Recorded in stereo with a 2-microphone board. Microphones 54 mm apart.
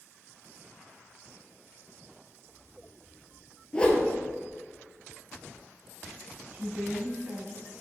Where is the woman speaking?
35° right (ahead or behind), 1.2 m.